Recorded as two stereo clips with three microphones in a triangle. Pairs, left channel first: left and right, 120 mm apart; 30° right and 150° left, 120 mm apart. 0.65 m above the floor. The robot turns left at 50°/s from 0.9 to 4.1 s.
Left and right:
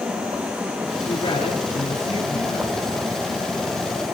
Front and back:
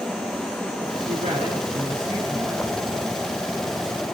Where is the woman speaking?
150° left, 8.5 m; by 3.0 s 55° left, 8.5 m.